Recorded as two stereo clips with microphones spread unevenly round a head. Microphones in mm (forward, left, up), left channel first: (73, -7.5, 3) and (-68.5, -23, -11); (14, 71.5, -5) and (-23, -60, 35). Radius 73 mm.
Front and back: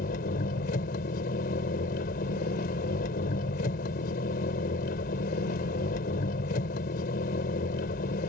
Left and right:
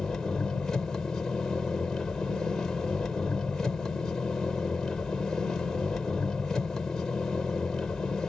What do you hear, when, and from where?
0.0 s an engine running: 15° right